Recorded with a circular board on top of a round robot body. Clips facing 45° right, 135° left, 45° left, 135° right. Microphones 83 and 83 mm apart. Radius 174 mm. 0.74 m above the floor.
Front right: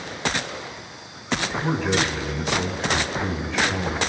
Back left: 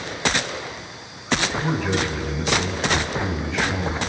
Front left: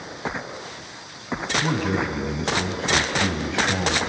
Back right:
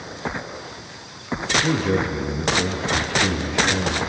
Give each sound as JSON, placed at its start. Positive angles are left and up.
{"t": 1.6, "sound": "a man speaking", "azimuth_deg": 50, "distance_m": 6.5}